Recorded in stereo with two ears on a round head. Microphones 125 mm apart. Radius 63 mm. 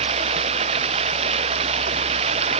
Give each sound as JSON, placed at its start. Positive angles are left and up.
{"t": 0.0, "sound": "running water", "side_deg": -45}